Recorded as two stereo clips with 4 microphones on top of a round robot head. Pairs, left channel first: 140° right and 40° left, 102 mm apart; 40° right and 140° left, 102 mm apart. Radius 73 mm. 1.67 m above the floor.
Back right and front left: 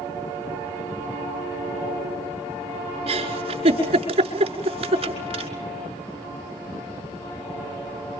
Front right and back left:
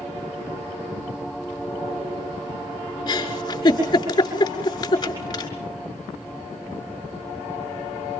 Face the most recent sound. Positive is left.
turn(degrees=15)